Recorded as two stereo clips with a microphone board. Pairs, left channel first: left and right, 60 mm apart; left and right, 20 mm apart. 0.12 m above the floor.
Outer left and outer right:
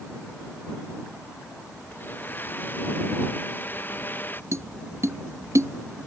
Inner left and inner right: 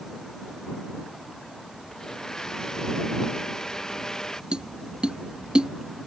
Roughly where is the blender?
Left.